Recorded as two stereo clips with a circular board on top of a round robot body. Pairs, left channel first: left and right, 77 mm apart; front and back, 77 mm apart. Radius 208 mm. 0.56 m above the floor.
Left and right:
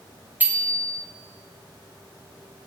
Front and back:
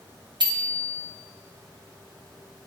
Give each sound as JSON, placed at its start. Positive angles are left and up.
{"t": 0.4, "sound": "a bicycle bell", "azimuth_deg": -155, "distance_m": 2.5}